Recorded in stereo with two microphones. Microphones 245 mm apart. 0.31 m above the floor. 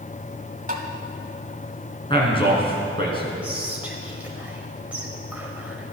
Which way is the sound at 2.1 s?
20° left (ahead or behind).